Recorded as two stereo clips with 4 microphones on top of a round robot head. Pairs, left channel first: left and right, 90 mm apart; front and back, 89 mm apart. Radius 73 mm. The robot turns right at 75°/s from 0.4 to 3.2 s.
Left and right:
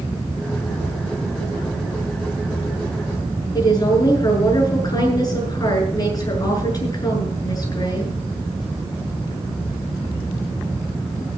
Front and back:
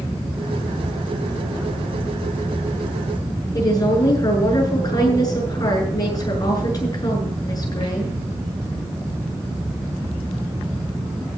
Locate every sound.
3.5 s a woman speaking: 45° left, 7.5 m